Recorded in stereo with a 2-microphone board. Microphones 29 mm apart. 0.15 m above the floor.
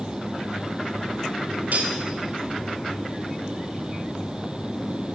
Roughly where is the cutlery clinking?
Right.